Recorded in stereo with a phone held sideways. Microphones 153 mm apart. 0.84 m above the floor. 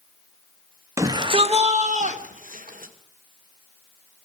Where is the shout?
20° right (ahead or behind), 1.4 m; by 2.9 s 65° right (ahead or behind), 3.5 m.